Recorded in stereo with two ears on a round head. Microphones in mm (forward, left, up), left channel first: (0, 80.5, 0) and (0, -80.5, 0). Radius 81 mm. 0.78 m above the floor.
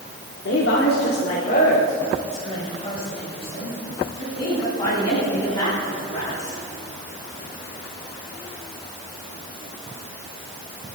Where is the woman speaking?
65° left (ahead or behind), 2.0 m; by 6.6 s 25° left (ahead or behind), 9.5 m.